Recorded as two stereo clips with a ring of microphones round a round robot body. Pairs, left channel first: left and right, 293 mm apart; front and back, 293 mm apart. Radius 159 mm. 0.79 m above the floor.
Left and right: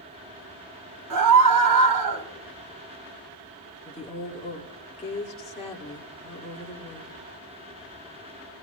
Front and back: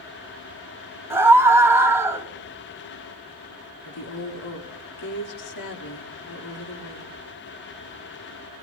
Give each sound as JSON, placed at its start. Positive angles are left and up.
{"t": 1.1, "sound": "a scream", "azimuth_deg": -100, "distance_m": 3.5}
{"t": 3.9, "sound": "a woman speaking", "azimuth_deg": 20, "distance_m": 2.0}